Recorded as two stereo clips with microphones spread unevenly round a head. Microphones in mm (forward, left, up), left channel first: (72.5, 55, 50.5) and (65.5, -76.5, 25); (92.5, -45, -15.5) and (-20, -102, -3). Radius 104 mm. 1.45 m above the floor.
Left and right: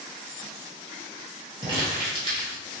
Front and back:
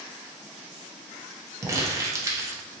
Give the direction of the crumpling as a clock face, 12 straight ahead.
5 o'clock.